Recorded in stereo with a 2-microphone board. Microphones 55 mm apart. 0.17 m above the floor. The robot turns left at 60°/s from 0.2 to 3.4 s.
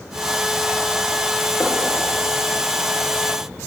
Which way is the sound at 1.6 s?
50° left (ahead or behind).